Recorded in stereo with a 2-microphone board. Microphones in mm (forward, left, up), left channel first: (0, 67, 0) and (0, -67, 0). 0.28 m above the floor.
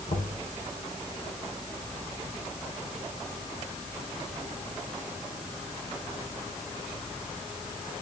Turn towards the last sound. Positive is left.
turn(degrees=70)  # may be behind; listen again after turning